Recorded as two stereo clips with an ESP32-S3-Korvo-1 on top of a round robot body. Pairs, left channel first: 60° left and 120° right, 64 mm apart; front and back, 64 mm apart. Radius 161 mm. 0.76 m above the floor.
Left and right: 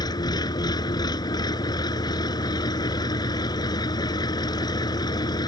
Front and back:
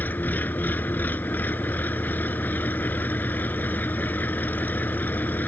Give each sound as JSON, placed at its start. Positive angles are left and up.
{"t": 0.0, "sound": "an engine running", "azimuth_deg": 65}